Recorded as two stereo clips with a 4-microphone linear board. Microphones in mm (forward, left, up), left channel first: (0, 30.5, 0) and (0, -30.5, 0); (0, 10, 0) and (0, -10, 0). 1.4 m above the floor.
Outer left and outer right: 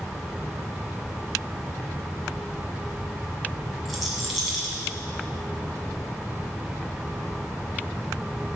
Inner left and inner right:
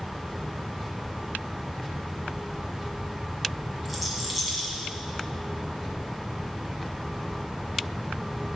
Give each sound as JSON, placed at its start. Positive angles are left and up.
{"t": 3.9, "sound": "a rattle", "side_deg": 0, "distance_m": 1.9}